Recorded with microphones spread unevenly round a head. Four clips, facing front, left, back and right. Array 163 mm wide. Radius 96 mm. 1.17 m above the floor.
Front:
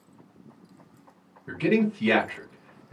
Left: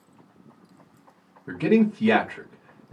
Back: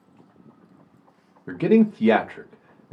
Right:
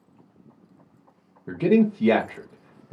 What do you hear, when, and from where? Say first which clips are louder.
1.5 s a man speaking: right 1 dB, back 6 dB; 150° right, 0.6 m